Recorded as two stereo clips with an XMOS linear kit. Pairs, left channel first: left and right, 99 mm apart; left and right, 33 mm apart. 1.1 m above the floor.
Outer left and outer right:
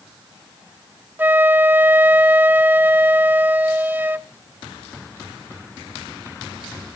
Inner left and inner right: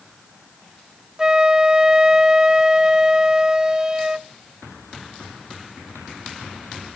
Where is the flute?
20° right (ahead or behind), 0.6 m.